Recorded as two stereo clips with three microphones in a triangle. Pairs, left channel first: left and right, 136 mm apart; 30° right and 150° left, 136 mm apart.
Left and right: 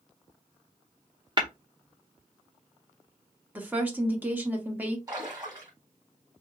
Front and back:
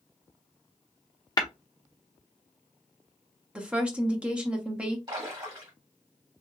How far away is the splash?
About 1.6 m.